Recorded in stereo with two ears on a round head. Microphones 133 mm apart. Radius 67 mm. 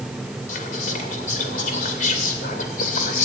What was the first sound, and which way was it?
Whispering, 55° left (ahead or behind).